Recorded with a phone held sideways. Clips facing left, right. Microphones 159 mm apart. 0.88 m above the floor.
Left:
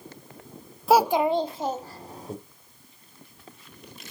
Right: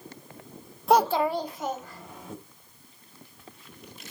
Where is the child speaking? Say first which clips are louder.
Left 2 dB; centre (ahead or behind), 0.6 m; by 2.3 s 40° left (ahead or behind), 2.0 m.